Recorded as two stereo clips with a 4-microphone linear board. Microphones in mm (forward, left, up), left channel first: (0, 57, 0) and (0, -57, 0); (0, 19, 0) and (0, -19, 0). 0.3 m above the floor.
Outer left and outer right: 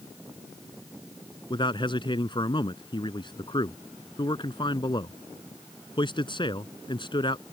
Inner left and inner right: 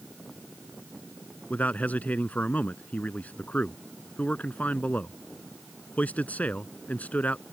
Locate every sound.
1.5 s a man speaking: 45° left (ahead or behind)